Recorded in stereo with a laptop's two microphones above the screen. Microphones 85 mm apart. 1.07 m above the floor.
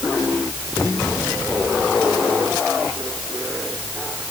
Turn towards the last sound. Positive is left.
No sound to turn to.